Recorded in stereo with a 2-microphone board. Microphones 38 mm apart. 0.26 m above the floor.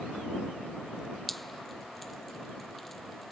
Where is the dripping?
Centre (ahead or behind).